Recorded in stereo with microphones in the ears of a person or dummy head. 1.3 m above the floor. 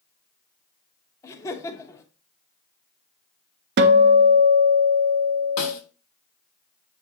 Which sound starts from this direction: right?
A guitar, at 3.8 s.